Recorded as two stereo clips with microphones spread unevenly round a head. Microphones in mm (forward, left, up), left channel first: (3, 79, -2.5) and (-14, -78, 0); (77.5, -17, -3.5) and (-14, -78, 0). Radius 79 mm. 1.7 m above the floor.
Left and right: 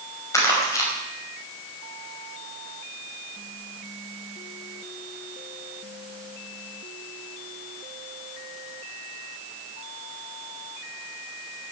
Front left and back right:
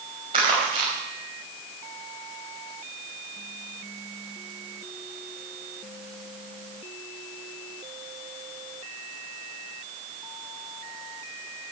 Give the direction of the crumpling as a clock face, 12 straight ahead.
7 o'clock.